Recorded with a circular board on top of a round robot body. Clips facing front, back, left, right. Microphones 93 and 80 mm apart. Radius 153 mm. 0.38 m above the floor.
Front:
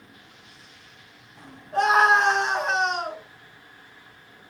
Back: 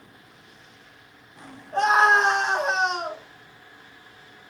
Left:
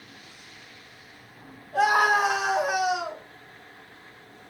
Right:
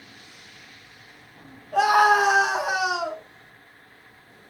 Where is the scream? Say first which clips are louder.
Even, right 3 dB; 90° right, 5.5 m; by 3.2 s 100° right, 4.5 m.